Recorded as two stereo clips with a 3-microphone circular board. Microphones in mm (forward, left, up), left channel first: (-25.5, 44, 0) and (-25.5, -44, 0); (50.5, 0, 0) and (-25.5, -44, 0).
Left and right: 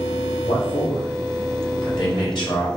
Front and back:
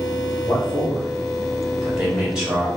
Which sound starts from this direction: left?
A man speaking, at 0.4 s.